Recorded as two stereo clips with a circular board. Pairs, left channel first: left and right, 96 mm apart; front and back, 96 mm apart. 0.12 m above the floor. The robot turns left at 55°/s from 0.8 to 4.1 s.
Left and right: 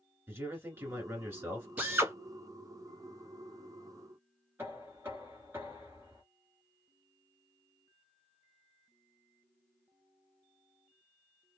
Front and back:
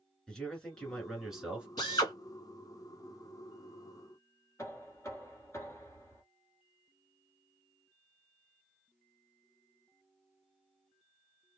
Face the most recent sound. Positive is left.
turn(degrees=-40)